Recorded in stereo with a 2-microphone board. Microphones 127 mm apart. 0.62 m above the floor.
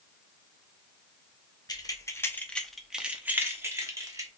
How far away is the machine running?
No machine running in this recording.